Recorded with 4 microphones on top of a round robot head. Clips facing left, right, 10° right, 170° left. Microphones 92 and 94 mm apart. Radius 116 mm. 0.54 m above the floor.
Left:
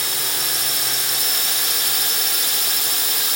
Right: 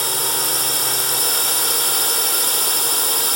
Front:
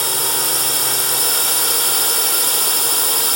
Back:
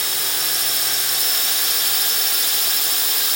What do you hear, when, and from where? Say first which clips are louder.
0.0 s a drone: right 5 dB, front 7 dB; 50° right